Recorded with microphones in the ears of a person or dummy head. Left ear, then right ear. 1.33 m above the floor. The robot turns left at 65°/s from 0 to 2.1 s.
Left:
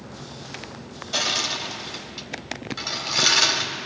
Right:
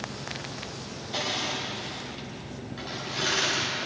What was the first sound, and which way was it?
Crushing, 45° left (ahead or behind).